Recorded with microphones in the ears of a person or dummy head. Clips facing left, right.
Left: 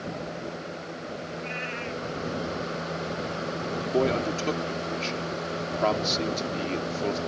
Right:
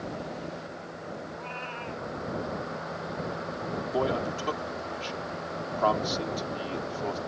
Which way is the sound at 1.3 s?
25° left (ahead or behind).